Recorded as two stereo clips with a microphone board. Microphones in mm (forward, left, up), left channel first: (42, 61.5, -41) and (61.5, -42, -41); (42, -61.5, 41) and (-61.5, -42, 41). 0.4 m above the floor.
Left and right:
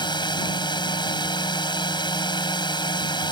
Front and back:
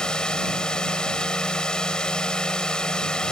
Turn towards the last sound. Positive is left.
turn(degrees=70)